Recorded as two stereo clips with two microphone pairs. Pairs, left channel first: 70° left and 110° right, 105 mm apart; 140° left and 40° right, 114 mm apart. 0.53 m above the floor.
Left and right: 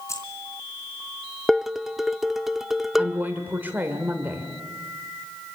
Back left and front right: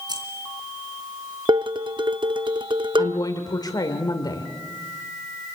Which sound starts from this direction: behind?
A woman speaking, at 3.0 s.